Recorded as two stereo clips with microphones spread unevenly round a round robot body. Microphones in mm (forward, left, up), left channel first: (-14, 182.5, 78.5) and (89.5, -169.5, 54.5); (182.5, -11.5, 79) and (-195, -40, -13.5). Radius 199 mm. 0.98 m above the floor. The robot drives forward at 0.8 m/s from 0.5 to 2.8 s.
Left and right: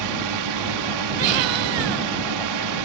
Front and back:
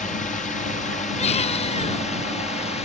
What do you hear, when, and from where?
0.0 s a drone: 75° right
1.2 s a baby crying: 70° right